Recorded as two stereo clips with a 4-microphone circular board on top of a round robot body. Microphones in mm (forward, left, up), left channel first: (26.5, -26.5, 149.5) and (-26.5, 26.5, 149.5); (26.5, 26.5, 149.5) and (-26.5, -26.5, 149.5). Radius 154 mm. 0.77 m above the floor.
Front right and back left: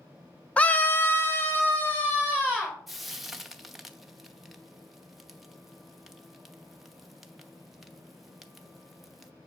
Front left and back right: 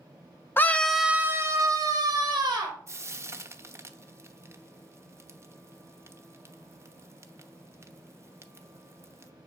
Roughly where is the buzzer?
I don't hear a buzzer.